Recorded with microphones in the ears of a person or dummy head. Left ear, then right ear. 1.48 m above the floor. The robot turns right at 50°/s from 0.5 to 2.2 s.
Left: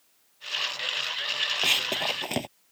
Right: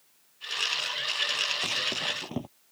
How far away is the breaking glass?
No breaking glass in this recording.